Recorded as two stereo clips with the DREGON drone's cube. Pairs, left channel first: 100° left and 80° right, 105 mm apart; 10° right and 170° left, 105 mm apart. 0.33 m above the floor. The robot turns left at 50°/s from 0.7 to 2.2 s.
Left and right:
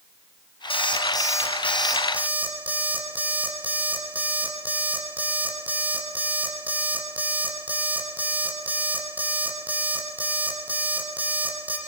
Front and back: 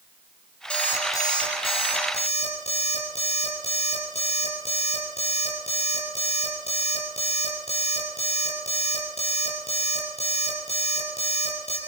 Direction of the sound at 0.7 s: 70° left.